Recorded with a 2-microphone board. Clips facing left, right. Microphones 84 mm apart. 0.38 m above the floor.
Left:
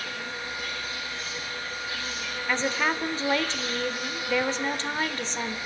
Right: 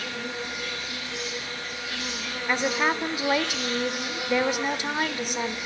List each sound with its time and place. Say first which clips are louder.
0.0 s an insect: right 2 dB; 85° right, 6.5 m
2.5 s a woman speaking: right 2 dB; 15° right (ahead or behind), 0.9 m